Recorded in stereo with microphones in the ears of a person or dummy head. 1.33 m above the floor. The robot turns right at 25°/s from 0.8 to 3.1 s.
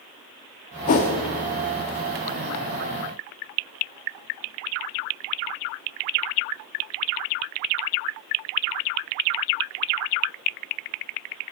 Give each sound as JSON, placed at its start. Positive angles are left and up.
{"t": 0.9, "sound": "a whoosh", "side_deg": 40, "distance_m": 1.2}